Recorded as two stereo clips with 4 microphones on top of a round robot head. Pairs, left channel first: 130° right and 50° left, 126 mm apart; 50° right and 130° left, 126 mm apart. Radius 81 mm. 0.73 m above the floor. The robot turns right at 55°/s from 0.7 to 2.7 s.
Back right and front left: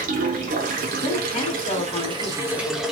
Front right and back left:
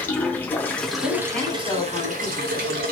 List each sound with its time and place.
0.0 s running water: 25° left, 0.7 m; by 2.9 s 135° left, 0.7 m
1.0 s a woman speaking: 150° right, 2 m; by 2.8 s 55° right, 2 m